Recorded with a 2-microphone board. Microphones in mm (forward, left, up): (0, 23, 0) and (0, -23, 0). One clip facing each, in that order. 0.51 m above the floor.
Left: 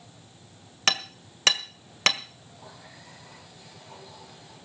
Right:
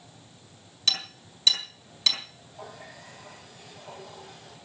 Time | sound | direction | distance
0.9 | hammering | 60° left (ahead or behind) | 1.6 m
2.5 | a running tap | 55° right (ahead or behind) | 10 m